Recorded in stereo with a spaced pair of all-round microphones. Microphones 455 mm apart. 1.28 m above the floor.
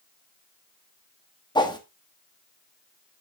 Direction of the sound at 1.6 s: 10° left (ahead or behind).